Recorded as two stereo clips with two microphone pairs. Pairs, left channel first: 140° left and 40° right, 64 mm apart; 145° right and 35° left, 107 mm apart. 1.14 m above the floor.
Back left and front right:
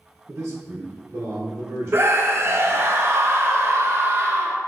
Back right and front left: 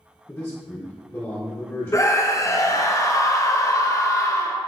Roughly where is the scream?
Right.